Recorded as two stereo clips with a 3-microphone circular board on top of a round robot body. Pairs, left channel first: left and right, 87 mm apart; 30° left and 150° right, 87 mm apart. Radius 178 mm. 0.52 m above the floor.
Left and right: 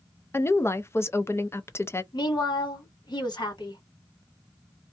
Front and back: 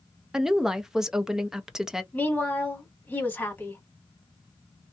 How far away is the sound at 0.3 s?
About 0.8 m.